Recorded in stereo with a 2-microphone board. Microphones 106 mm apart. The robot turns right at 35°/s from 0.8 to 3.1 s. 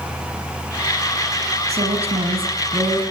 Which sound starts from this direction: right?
A woman speaking, at 1.7 s.